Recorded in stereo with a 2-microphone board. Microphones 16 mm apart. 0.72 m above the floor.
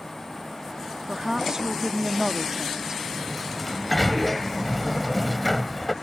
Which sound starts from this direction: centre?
A sliding door, at 3.0 s.